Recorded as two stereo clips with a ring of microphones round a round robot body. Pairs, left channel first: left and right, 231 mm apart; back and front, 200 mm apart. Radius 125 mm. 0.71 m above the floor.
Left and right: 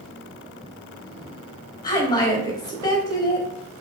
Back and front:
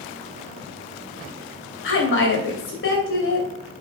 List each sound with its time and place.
1.8 s a woman speaking: 165° left, 3 m